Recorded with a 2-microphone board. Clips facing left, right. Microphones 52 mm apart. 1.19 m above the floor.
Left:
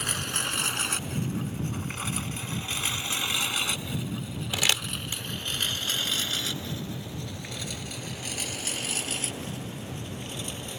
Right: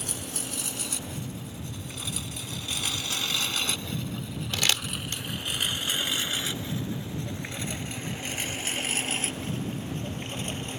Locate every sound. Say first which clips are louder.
0.0 s a lawn mower: left 6 dB; 65° left (ahead or behind); by 10.8 s 40° right (ahead or behind)
4.5 s crumpling: left 1 dB; 10° left (ahead or behind)